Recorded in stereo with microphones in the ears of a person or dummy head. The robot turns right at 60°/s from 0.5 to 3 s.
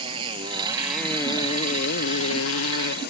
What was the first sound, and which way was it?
A motorcycle, 25° right.